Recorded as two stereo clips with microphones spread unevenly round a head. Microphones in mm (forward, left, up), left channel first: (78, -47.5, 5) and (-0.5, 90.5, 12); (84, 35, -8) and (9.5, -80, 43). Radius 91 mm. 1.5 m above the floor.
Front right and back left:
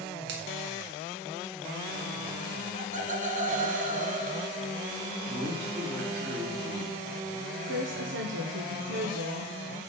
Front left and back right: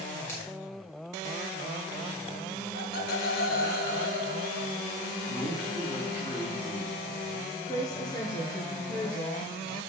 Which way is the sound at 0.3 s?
140° left.